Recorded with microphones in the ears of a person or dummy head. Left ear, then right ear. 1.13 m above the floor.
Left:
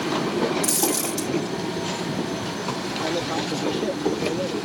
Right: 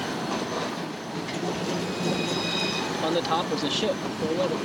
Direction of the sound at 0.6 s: 65° left (ahead or behind).